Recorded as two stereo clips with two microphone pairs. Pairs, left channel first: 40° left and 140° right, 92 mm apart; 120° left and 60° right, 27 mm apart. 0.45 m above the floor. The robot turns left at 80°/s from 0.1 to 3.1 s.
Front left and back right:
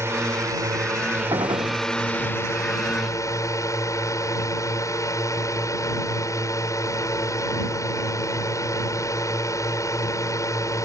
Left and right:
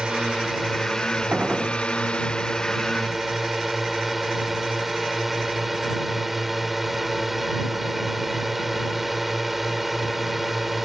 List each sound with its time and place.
0.0 s a drone: 100° right; by 10.8 s 20° left
1.3 s a gunshot: 105° right; by 1.8 s 140° right